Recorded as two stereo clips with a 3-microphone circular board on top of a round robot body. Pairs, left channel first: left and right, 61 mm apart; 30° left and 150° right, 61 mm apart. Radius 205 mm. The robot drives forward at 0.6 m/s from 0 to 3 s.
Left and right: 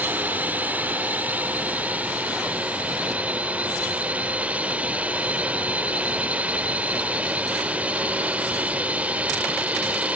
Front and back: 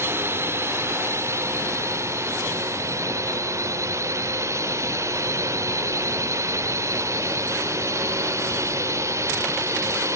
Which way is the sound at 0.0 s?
135° right.